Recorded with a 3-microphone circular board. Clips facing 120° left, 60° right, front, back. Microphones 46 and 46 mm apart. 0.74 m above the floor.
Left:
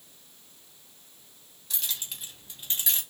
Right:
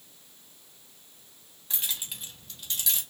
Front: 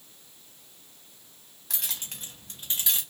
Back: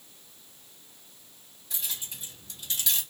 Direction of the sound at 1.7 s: 5° left.